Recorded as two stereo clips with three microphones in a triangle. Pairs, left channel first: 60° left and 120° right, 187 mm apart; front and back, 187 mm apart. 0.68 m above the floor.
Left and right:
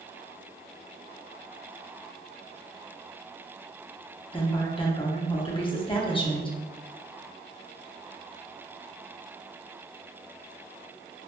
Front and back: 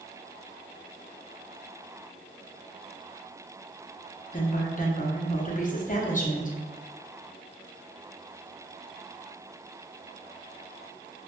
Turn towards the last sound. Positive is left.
turn(degrees=10)